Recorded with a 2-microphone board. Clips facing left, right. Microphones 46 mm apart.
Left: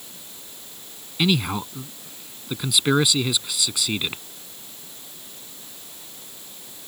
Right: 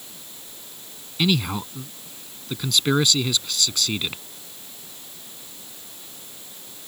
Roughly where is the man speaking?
Centre.